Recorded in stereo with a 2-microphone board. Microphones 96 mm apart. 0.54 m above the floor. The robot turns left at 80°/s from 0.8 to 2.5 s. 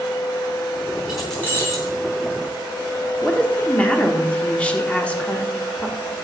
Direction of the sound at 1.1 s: 170° right.